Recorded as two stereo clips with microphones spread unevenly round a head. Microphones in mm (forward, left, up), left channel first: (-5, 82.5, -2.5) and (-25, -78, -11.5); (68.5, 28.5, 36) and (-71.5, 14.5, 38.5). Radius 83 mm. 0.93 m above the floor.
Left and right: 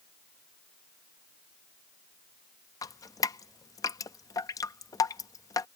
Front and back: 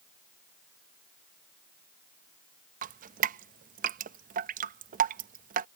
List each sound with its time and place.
2.8 s dripping: 155° left